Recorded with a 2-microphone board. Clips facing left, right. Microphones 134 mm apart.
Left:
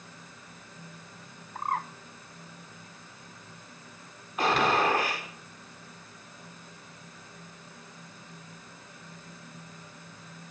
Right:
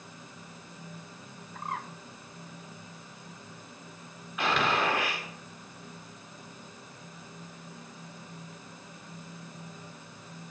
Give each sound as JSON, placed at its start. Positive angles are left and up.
{"t": 1.6, "sound": "a bird", "side_deg": 45, "distance_m": 0.8}
{"t": 4.4, "sound": "a gunshot", "side_deg": 40, "distance_m": 4.0}